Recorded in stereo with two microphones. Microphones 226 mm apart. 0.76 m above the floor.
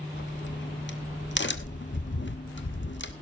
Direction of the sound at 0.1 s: 55° left (ahead or behind).